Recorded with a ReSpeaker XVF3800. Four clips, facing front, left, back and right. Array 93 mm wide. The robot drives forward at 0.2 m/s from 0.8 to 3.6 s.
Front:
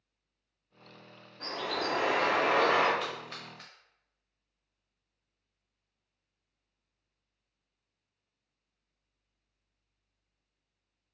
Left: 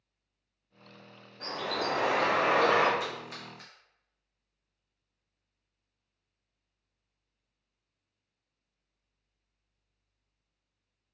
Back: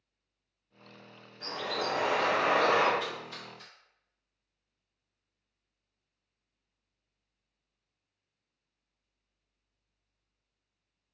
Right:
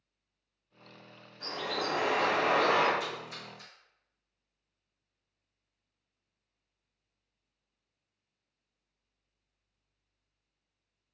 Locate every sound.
1.4 s a bird: 45° left, 1.3 m; by 2.9 s 55° left, 1.1 m
3.0 s a splash: 30° left, 1.2 m